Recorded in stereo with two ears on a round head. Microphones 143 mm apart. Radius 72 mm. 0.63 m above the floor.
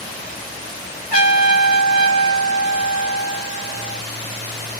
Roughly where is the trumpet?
Left.